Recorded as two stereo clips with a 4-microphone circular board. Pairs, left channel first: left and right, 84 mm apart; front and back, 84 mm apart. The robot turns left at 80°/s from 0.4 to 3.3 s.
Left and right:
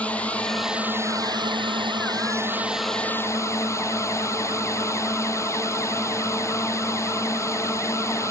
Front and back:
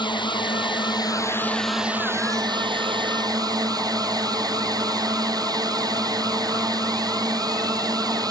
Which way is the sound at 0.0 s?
15° left.